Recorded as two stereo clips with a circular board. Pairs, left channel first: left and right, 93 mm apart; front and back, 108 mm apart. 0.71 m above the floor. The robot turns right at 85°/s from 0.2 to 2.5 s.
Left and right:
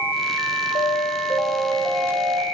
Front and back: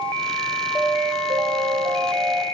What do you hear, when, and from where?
0.8 s an alarm: 105° left, 3.5 m; by 2.4 s 110° right, 3.5 m